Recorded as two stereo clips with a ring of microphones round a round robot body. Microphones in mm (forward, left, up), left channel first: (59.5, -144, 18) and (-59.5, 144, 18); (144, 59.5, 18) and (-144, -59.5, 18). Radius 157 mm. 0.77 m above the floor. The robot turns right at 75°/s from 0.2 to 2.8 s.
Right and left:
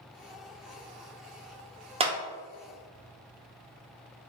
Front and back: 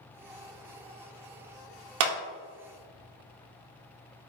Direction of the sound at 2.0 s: Straight behind.